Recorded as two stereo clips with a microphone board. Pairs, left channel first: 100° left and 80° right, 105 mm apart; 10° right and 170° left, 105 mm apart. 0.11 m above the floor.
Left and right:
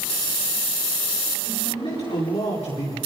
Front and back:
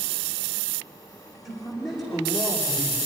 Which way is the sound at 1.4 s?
80° left.